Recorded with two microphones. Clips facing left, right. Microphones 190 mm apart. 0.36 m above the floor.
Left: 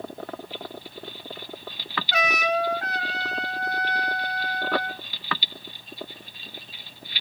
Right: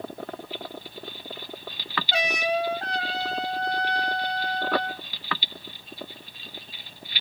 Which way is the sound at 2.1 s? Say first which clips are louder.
Left 1 dB; 30° right (ahead or behind).